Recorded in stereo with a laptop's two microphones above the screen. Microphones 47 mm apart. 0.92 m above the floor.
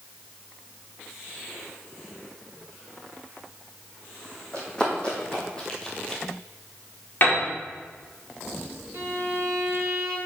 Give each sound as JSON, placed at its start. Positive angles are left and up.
{"t": 4.5, "sound": "running footsteps", "side_deg": 20, "distance_m": 2.5}
{"t": 7.2, "sound": "a piano", "side_deg": 45, "distance_m": 1.8}
{"t": 8.9, "sound": "a violin", "side_deg": -50, "distance_m": 2.5}